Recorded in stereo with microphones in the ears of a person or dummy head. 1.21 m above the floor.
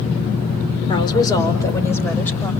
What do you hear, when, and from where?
0.9 s a woman speaking: 30° left (ahead or behind), 3 m; by 2.5 s 10° left (ahead or behind), 5 m